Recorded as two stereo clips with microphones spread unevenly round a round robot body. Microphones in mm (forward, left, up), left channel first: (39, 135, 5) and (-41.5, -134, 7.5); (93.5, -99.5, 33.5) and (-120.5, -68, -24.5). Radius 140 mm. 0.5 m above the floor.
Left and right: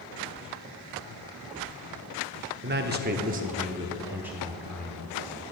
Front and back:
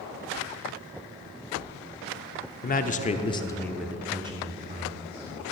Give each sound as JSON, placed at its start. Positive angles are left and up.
{"t": 2.6, "sound": "a man speaking", "azimuth_deg": -60, "distance_m": 1.0}